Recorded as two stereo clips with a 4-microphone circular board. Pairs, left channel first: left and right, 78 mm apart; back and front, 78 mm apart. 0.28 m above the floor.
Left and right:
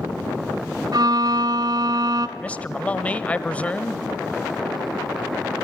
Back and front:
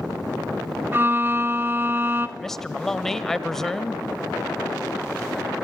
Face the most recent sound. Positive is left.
turn(degrees=105)